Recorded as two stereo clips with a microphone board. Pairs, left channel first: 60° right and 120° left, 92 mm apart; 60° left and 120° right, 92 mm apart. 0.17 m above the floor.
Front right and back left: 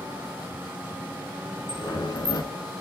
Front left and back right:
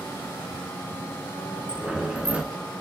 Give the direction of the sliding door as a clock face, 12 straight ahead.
2 o'clock.